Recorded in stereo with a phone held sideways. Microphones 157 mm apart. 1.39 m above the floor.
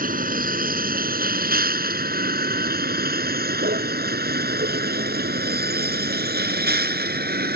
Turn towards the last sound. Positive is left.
turn(degrees=-85)